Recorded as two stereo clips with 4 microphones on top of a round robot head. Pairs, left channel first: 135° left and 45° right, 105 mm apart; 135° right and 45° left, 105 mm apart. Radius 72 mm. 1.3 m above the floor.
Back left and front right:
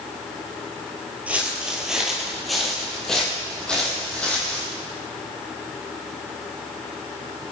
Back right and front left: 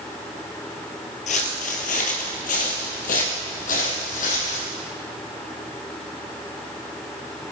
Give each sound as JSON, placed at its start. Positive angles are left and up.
{"t": 1.3, "sound": "footsteps", "azimuth_deg": -125, "distance_m": 2.0}